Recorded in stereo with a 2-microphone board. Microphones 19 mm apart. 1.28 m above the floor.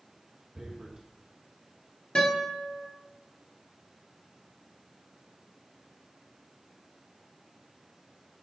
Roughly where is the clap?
I don't hear a clap.